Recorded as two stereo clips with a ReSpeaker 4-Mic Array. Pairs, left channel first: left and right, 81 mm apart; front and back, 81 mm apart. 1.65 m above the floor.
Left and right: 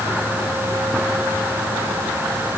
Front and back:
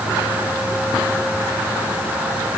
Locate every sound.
Only background noise.